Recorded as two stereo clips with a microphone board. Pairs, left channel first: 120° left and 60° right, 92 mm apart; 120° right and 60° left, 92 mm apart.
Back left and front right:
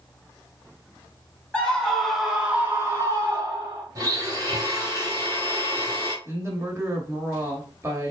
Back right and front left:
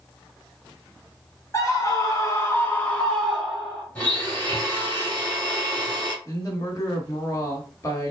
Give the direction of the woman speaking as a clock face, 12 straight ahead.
3 o'clock.